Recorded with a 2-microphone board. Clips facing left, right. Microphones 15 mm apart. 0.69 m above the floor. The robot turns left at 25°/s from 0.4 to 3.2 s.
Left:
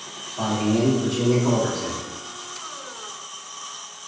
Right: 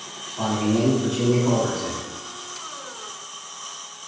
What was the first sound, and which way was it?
A man speaking, 115° left.